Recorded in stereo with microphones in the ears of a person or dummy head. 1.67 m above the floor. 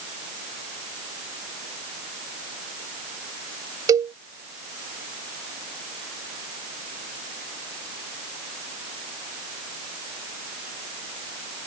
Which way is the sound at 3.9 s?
20° right (ahead or behind).